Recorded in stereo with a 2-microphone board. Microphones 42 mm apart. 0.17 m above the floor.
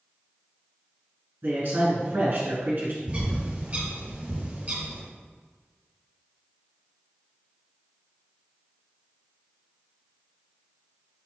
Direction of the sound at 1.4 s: 50° right (ahead or behind).